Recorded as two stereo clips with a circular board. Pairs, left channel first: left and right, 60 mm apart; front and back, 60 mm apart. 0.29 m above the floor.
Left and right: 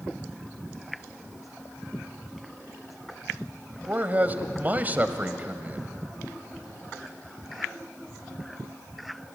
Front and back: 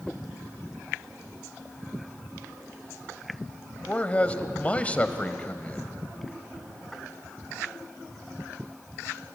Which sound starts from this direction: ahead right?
A man speaking, at 3.9 s.